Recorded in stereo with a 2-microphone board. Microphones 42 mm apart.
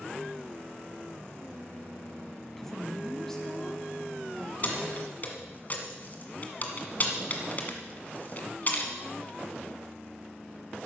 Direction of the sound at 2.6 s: 10° left (ahead or behind).